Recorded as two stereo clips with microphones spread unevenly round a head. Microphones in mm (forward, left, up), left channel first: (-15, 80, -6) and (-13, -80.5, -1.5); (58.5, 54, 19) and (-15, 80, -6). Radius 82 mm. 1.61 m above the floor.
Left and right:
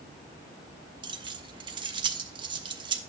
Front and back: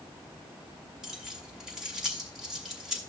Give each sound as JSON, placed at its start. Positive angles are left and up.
{"t": 1.0, "sound": "keys jangling", "azimuth_deg": -85, "distance_m": 0.8}